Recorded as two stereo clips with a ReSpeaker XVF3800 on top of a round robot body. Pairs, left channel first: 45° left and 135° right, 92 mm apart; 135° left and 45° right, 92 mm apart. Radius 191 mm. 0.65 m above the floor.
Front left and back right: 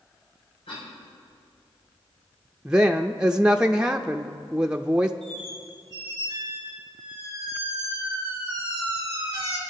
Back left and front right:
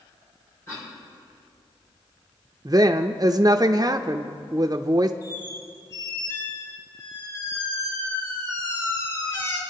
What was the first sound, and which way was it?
A cough, 70° left.